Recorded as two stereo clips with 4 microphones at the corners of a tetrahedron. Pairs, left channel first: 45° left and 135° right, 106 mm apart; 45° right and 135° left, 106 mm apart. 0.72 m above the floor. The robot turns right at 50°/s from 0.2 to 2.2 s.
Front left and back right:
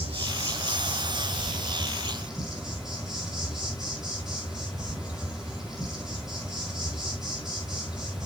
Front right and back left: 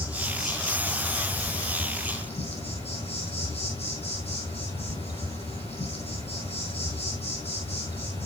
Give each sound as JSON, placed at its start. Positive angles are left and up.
{"t": 0.0, "sound": "an insect", "azimuth_deg": -155, "distance_m": 6.5}